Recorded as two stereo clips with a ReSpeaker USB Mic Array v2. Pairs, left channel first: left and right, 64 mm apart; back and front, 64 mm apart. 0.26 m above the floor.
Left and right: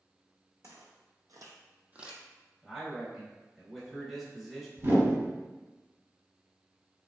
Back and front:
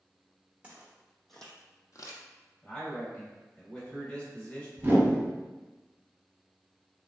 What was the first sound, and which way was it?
Footsteps, 70° right.